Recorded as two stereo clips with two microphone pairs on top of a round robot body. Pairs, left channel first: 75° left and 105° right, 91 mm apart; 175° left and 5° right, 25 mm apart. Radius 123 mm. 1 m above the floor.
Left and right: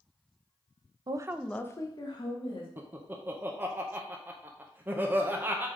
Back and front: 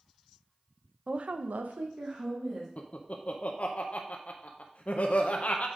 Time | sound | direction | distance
1.1 | a woman speaking | 65° right | 0.6 m
2.8 | laughter | 175° right | 0.8 m